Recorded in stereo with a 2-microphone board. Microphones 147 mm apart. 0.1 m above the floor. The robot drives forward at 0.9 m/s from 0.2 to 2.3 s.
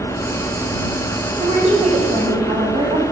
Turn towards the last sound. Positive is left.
turn(degrees=-55)  # may be behind; listen again after turning